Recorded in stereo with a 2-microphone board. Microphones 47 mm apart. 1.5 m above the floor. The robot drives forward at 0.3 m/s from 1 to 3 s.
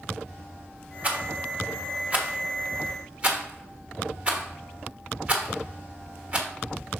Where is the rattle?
30° right (ahead or behind), 1.2 m.